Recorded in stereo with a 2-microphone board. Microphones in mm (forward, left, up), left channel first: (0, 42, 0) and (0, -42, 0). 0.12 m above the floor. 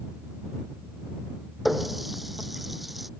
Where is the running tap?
Centre (ahead or behind).